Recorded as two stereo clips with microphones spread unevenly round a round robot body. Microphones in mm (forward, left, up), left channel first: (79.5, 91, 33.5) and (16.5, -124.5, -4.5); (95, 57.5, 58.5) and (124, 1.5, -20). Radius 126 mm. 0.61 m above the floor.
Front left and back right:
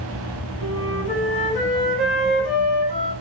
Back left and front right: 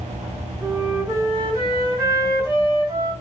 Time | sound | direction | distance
0.6 | a flute | 15° right | 2.5 m